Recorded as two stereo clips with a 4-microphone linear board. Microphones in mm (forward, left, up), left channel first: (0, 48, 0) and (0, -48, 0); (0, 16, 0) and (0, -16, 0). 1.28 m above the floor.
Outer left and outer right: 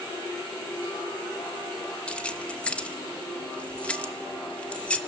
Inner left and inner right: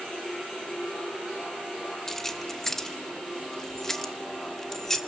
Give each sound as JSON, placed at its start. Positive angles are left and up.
{"t": 2.1, "sound": "keys jangling", "side_deg": 15, "distance_m": 1.0}